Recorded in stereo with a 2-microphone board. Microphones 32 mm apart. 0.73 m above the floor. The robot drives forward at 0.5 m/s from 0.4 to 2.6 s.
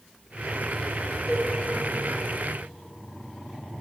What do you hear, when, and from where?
1.3 s a cowbell: 20° left (ahead or behind), 1.2 m; by 1.5 s 25° left (ahead or behind), 1.1 m